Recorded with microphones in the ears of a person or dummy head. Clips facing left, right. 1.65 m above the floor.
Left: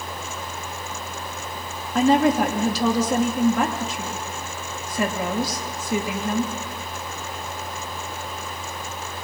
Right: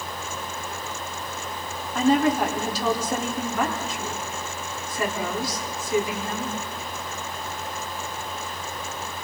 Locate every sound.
1.9 s a woman speaking: 65° left (ahead or behind), 3.5 m